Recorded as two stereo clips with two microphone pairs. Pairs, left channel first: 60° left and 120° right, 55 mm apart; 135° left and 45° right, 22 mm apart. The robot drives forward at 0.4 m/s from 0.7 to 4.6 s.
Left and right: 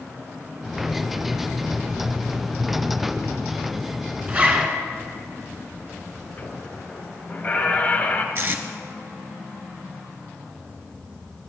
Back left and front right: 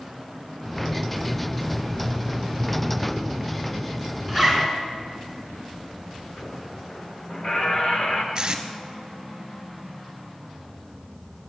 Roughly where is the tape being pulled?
Right.